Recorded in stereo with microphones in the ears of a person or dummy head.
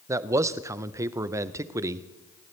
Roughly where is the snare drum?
No snare drum in this recording.